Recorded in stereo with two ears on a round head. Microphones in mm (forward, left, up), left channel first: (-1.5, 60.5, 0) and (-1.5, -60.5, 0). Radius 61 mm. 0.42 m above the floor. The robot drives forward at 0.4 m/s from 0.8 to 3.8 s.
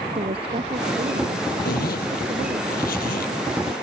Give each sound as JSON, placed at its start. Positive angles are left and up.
{"t": 0.1, "sound": "a woman speaking", "side_deg": -45}
{"t": 1.6, "sound": "a zipper", "side_deg": 85}